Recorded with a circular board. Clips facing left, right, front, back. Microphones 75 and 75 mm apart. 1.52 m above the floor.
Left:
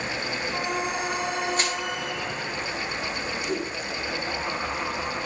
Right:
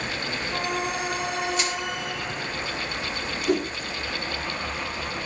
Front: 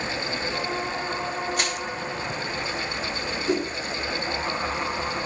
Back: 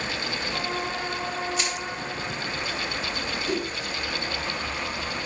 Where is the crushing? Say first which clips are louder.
Even, front 2 dB; 35° left, 7 m.